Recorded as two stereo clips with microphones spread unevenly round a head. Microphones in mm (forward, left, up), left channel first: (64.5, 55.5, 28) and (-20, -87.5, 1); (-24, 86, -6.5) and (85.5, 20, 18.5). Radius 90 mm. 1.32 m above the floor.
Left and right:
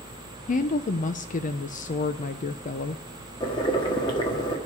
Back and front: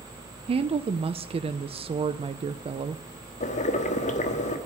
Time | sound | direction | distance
0.5 | a woman speaking | 15° left | 0.6 m
3.4 | boiling | 120° left | 1.3 m